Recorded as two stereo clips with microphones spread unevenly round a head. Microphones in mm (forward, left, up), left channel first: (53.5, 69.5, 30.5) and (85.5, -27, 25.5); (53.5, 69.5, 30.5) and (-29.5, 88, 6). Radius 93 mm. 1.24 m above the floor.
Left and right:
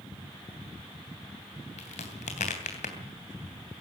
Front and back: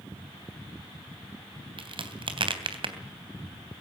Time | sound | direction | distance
1.8 | a crack | 145° left | 3 m